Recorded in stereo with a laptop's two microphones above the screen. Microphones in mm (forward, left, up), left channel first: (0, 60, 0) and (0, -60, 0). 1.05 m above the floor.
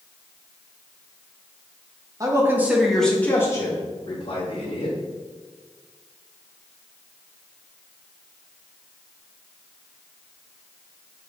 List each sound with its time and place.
2.2 s a man speaking: 30° right (ahead or behind), 0.9 m; by 5.0 s 50° left (ahead or behind), 1.6 m